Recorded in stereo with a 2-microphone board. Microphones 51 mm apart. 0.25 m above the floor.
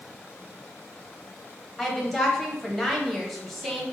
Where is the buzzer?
No buzzer in this recording.